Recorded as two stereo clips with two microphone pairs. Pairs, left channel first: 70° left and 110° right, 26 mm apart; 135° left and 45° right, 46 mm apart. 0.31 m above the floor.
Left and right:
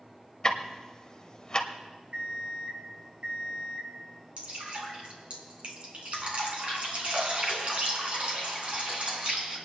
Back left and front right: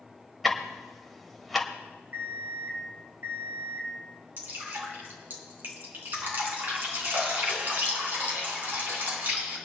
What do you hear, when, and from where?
0.4 s ticking: 45° left, 1.3 m
2.1 s an alarm clock: 75° right, 3.5 m
4.4 s dripping: 75° right, 3.5 m